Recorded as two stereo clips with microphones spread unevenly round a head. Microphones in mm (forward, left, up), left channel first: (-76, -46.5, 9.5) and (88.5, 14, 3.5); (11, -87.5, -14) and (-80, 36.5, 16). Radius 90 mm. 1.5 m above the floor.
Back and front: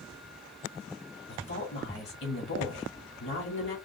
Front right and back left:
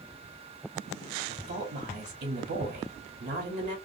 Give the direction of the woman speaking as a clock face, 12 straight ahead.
6 o'clock.